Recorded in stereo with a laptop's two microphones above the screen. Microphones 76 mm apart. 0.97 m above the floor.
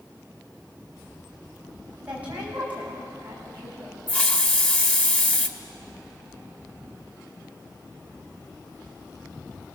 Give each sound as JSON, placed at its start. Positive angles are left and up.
{"t": 2.0, "sound": "a woman speaking", "side_deg": -20, "distance_m": 7.0}
{"t": 4.1, "sound": "a hiss", "side_deg": 15, "distance_m": 1.3}